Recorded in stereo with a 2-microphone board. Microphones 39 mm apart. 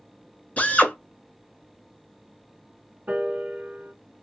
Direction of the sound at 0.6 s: 35° left (ahead or behind).